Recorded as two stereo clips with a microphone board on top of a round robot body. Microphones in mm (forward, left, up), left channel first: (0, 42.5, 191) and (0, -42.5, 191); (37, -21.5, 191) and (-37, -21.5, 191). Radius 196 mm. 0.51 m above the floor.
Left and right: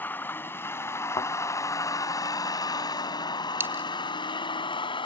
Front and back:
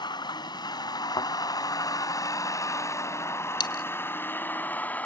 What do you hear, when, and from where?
0.0 s a vehicle: 20° left; by 5.0 s 70° left
1.2 s a thud: 40° left
3.6 s a dropped coin: 25° right